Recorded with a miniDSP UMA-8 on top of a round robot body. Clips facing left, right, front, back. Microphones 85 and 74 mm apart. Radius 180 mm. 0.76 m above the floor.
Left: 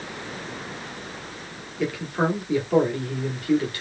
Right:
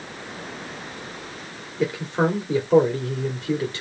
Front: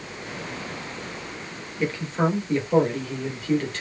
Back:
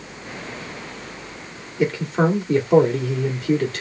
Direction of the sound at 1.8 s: 150° right.